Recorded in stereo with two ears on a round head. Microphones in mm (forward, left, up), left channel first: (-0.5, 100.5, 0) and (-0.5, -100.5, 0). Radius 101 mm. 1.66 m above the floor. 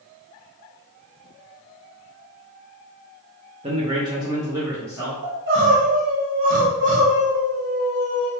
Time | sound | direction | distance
3.6 | a man speaking | 25° right (ahead or behind) | 0.7 m
5.2 | crying | 35° right (ahead or behind) | 1.9 m